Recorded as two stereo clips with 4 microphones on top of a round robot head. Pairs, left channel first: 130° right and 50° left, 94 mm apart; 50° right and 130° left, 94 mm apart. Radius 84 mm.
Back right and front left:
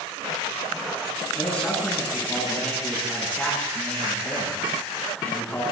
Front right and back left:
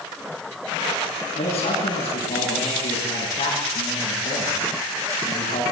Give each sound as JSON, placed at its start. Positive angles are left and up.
{"t": 1.4, "sound": "a man speaking", "azimuth_deg": -55, "distance_m": 9.0}